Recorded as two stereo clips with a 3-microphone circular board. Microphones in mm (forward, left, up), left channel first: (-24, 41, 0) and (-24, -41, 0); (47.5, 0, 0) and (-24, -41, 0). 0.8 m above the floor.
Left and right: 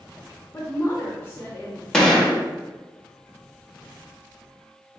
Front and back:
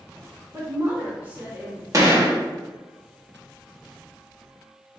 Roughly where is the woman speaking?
Behind left.